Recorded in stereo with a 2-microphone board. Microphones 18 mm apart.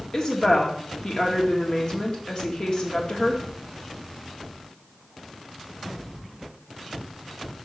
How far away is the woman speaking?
About 1.5 m.